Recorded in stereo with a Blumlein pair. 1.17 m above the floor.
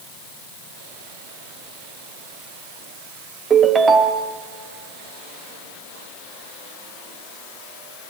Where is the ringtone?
20° right, 0.9 m.